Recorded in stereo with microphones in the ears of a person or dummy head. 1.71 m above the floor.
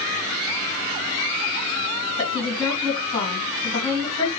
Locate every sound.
2.2 s a woman speaking: 20° left (ahead or behind), 2.5 m